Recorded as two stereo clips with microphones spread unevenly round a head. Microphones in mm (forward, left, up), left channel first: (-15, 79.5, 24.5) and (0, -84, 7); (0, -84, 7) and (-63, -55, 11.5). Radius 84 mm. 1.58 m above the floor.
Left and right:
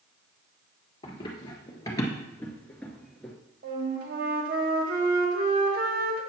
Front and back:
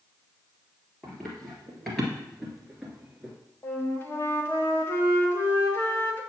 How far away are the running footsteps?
About 1.9 m.